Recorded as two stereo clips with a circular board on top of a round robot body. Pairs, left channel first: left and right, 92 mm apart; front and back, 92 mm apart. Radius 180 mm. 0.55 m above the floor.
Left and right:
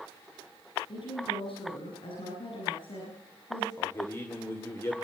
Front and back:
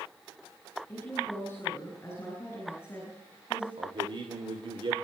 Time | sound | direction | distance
0.9 | a woman speaking | 70° left | 6.5 m
3.8 | a man speaking | 150° left | 2.5 m